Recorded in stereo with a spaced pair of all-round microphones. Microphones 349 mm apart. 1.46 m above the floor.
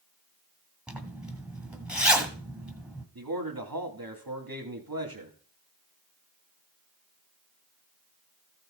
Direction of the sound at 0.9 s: 5° right (ahead or behind).